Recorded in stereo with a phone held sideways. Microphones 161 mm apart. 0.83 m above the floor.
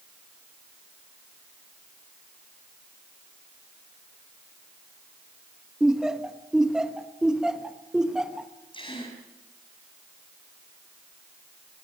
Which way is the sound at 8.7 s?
30° left (ahead or behind).